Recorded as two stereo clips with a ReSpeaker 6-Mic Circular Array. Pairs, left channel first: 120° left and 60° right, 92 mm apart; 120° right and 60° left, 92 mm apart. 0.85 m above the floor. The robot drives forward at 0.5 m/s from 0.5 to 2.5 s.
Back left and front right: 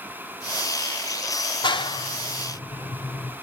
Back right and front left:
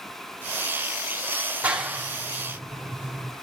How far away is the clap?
About 1.4 m.